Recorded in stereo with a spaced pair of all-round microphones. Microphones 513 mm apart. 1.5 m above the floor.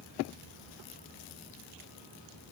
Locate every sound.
Only background noise.